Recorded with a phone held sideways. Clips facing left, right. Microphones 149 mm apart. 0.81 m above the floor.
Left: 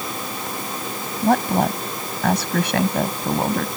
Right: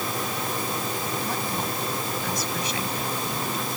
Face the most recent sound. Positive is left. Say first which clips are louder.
# left 11 dB
turn(degrees=70)  # may be behind; listen again after turning